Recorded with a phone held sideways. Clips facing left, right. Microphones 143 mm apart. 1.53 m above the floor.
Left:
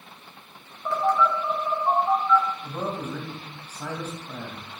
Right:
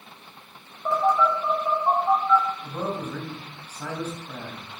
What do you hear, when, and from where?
0.8 s a phone buzzing: 20° right (ahead or behind), 5 m
2.6 s a man speaking: 10° left (ahead or behind), 2.5 m